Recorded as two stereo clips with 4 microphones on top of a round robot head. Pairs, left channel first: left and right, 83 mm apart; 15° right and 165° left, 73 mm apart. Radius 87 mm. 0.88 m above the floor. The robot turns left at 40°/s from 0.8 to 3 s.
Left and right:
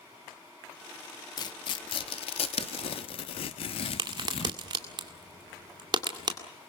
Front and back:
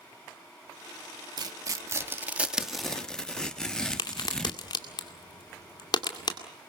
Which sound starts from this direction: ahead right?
A crack, at 4.0 s.